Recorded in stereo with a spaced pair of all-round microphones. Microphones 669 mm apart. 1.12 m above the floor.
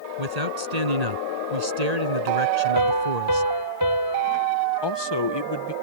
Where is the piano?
30° right (ahead or behind).